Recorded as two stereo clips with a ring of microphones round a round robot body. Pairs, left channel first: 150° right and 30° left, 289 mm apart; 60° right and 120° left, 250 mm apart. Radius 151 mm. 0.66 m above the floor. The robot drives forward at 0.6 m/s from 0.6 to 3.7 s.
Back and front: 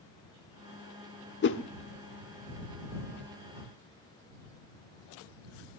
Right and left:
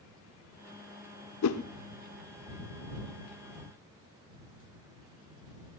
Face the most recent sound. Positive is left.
turn(degrees=-150)